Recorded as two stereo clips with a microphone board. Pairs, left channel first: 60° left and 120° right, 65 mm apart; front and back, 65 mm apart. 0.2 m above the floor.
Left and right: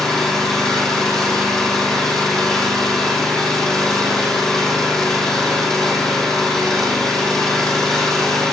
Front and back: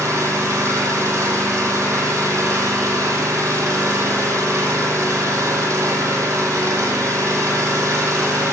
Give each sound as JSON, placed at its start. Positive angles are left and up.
{"t": 0.0, "sound": "an engine running", "azimuth_deg": 140, "distance_m": 1.8}